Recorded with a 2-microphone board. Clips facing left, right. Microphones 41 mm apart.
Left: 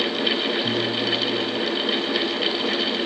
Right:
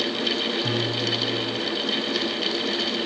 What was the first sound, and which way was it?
A piano, 55° right (ahead or behind).